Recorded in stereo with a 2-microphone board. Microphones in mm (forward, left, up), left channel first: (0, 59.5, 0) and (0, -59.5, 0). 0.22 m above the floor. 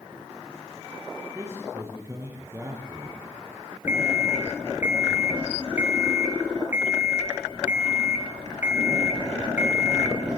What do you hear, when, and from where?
1.4 s a man speaking: 25° right (ahead or behind), 6 m
3.9 s an alarm clock: 20° right (ahead or behind), 1.9 m